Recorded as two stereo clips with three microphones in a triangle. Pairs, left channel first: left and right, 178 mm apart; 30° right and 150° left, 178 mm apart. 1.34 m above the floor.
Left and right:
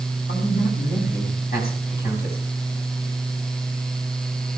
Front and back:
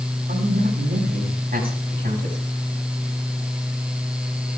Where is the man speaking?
120° left, 8 m.